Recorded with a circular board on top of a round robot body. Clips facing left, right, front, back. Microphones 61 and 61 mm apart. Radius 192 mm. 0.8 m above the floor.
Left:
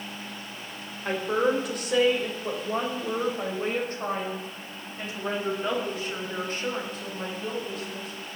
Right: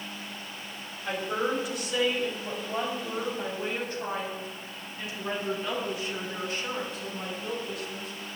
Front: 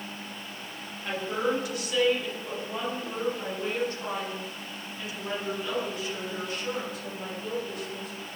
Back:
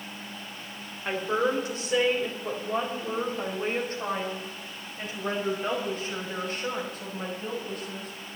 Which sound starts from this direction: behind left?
A woman speaking, at 1.1 s.